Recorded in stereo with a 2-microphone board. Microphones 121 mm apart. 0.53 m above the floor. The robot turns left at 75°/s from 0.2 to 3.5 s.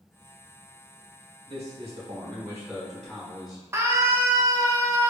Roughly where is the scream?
Right.